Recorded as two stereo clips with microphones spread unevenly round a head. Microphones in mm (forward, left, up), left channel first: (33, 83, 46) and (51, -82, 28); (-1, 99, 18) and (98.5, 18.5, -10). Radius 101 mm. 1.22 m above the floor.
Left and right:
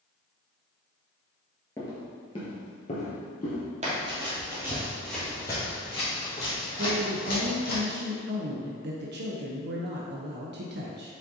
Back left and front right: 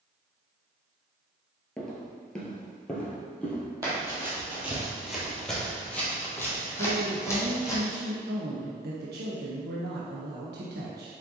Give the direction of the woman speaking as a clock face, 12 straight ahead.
2 o'clock.